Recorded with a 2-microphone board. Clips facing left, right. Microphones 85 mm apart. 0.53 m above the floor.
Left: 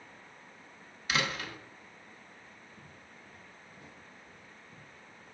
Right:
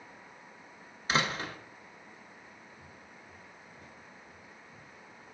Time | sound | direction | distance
1.1 | a door slam | 30° right (ahead or behind) | 0.7 m
2.8 | footsteps | 55° left (ahead or behind) | 3.5 m